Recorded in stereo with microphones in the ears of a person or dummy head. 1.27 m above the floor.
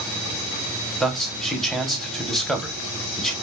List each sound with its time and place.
1.0 s a man speaking: 5° left (ahead or behind), 0.5 m